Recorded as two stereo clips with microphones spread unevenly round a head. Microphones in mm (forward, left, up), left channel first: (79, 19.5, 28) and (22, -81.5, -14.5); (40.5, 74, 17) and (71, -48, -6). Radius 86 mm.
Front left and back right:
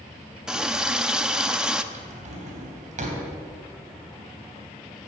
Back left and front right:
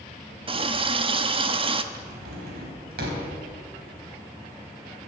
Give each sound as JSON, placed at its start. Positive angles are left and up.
{"t": 0.5, "sound": "a running tap", "azimuth_deg": -25, "distance_m": 1.0}
{"t": 1.9, "sound": "a drawer", "azimuth_deg": -100, "distance_m": 3.5}